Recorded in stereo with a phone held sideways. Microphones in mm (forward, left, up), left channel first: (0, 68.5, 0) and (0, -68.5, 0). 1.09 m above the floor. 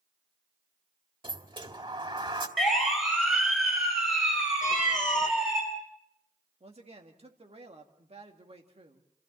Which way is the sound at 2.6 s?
Centre (ahead or behind).